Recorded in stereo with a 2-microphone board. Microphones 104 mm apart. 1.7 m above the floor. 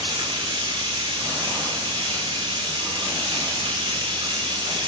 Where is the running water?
55° right (ahead or behind), 1.2 m.